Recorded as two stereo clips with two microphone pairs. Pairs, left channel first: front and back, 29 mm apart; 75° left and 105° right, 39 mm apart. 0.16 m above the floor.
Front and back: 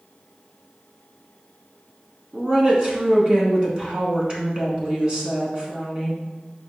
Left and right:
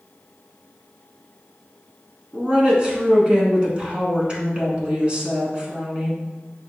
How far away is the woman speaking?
About 1.2 m.